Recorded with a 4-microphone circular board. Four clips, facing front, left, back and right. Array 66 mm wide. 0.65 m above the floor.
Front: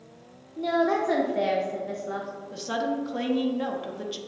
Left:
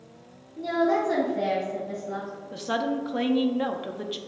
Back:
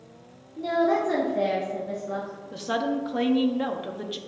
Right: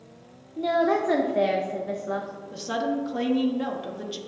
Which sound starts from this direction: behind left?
A woman speaking, at 2.5 s.